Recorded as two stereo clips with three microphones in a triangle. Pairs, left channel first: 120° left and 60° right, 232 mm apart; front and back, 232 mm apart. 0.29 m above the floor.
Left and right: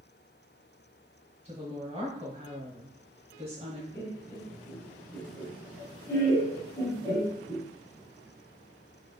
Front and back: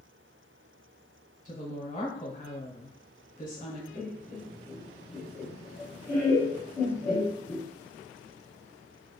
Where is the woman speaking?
20° right, 1.7 m.